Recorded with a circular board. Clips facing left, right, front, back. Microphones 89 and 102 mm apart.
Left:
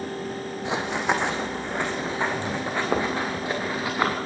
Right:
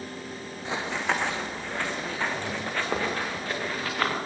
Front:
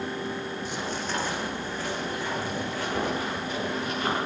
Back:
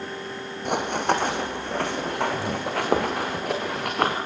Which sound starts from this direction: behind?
Running footsteps, at 0.7 s.